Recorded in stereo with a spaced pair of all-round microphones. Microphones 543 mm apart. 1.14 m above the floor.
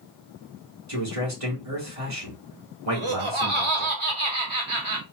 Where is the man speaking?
80° right, 2.5 m.